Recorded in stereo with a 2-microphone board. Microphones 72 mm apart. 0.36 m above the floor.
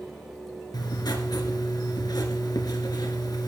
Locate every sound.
0.7 s writing: 70° left (ahead or behind), 2 m